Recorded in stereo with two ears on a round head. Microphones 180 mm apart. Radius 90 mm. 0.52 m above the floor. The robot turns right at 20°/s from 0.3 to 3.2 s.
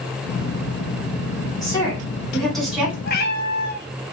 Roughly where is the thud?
No thud in this recording.